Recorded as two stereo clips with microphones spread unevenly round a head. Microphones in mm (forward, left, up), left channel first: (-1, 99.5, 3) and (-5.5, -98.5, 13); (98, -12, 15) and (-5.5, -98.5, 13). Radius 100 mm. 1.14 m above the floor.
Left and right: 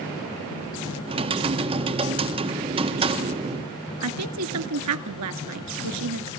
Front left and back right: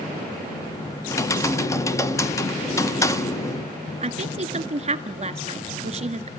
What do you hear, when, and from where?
1.1 s typing on a keyboard: 25° right, 1.4 m
4.0 s a woman speaking: 95° right, 1.8 m